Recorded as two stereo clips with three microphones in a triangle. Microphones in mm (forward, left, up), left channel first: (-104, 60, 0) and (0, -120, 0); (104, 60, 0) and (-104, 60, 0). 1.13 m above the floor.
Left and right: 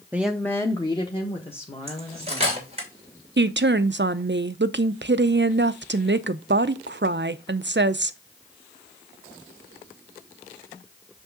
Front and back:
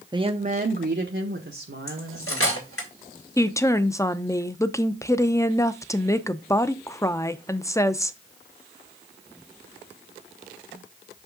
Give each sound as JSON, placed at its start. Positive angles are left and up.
{"t": 0.1, "sound": "a woman speaking", "azimuth_deg": -130, "distance_m": 0.6}
{"t": 1.9, "sound": "cutlery clinking", "azimuth_deg": 0, "distance_m": 2.5}
{"t": 3.4, "sound": "a woman speaking", "azimuth_deg": -70, "distance_m": 0.5}